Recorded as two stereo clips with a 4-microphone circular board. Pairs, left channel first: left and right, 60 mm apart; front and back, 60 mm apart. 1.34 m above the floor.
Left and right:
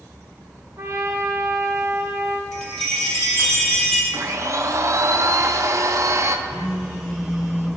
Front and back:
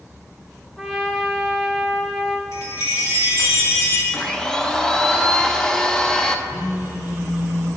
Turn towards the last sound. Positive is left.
turn(degrees=0)